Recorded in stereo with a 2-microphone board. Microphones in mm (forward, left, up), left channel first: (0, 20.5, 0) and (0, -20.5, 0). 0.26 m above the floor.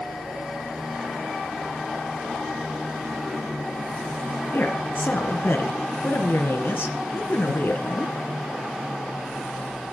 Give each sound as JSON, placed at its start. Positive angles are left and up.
{"t": 4.5, "sound": "a woman speaking", "side_deg": 60, "distance_m": 2.5}